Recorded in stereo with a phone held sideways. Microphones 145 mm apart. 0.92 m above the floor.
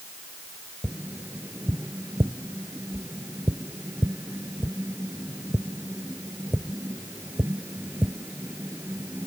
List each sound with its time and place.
0.8 s tapping: 15° right (ahead or behind)